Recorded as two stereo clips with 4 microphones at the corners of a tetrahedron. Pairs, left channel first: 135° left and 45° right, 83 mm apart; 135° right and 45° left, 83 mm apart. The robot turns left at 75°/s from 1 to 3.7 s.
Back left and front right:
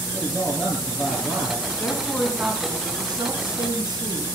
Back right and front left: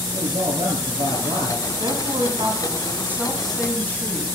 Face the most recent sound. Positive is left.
turn(degrees=-65)